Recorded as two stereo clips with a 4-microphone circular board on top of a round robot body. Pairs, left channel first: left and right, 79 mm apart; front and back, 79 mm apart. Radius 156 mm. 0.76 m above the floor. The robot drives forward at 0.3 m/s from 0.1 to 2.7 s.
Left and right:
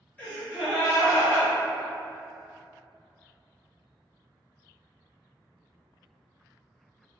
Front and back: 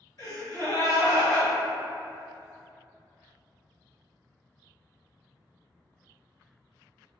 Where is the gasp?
25° left, 1.6 m; by 1.5 s 35° left, 1.3 m.